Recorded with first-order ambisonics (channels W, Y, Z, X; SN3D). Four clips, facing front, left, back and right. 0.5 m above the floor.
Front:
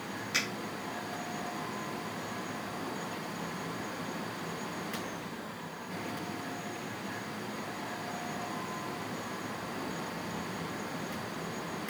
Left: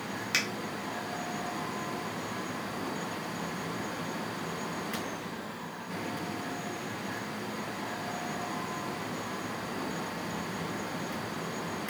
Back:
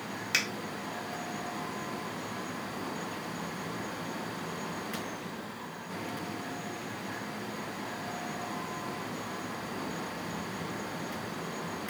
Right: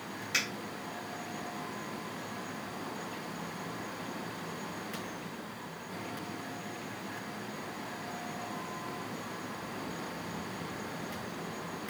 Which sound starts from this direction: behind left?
A finger snap, at 0.3 s.